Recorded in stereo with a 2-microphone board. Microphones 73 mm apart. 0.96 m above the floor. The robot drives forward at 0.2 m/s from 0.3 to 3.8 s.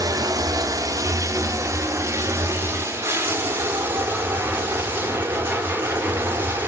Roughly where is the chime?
No chime in this recording.